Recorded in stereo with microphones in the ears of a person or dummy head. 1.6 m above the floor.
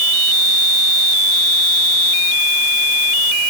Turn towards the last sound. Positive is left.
No sound to turn to.